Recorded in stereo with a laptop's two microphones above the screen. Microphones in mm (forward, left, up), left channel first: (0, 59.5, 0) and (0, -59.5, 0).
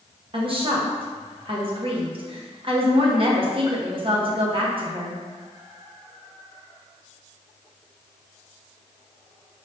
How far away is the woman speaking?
About 0.8 m.